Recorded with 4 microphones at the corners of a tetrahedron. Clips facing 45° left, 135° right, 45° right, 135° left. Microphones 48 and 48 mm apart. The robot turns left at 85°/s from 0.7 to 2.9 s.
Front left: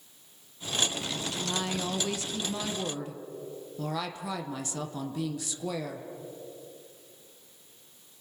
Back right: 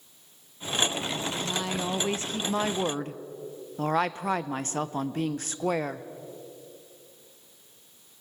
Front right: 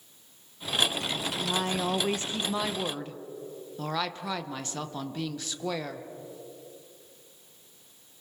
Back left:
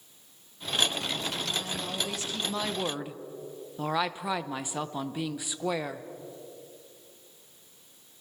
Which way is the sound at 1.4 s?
20° right.